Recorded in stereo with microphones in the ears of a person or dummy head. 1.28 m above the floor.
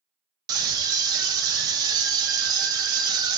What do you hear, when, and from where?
0.5 s a scream: 20° right (ahead or behind), 1.1 m